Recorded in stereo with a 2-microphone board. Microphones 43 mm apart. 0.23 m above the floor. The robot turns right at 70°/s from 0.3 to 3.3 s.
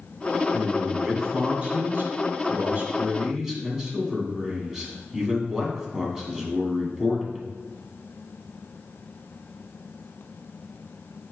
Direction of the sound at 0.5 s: 150° left.